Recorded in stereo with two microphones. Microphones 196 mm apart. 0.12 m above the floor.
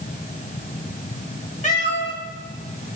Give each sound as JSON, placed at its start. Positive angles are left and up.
{"t": 1.6, "sound": "a cat meowing", "side_deg": 40, "distance_m": 4.0}